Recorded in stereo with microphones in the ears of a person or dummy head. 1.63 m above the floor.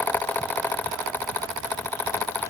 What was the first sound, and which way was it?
Only background noise.